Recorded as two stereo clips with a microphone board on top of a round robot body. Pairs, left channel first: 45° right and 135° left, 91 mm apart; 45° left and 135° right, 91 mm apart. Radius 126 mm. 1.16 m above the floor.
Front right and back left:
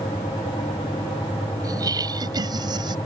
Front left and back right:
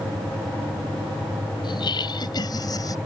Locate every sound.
1.6 s laughter: 85° left; by 3.0 s 95° left